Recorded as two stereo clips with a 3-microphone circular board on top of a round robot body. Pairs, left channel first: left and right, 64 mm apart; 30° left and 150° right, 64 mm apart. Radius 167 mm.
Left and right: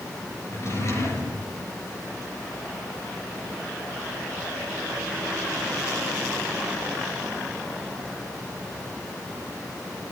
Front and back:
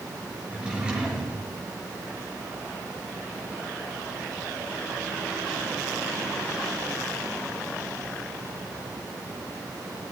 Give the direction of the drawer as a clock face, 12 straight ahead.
8 o'clock.